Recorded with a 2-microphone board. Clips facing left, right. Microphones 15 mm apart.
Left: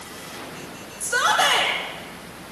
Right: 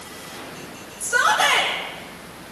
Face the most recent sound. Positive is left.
turn(degrees=15)  # may be behind; listen again after turning